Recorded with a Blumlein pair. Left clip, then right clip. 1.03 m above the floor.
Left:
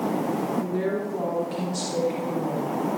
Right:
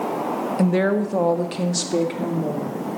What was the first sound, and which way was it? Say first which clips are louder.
A woman speaking: right 6 dB; 45° right.